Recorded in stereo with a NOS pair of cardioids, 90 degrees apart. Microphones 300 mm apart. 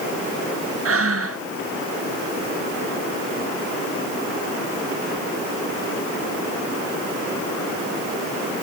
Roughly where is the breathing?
Ahead right.